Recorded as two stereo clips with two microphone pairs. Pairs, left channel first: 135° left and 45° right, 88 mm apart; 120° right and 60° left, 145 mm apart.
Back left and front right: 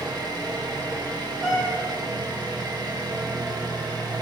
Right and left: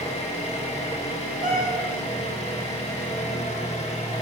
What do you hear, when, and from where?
0.0 s an engine running: 80° right, 1.3 m
1.4 s a cat meowing: 35° left, 1.8 m